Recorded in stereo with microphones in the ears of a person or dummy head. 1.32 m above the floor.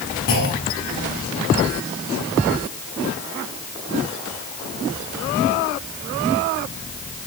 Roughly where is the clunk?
Left.